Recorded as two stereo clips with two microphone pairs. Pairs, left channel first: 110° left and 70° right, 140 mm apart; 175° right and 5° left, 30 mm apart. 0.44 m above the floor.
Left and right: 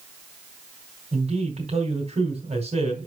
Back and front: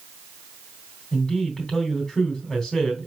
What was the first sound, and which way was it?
A man speaking, 105° right.